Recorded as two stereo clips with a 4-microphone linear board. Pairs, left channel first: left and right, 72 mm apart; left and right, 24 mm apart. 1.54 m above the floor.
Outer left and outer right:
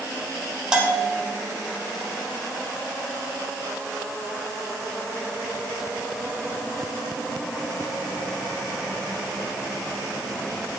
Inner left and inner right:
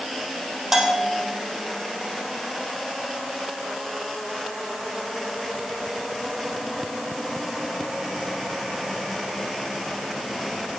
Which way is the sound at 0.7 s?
10° right (ahead or behind).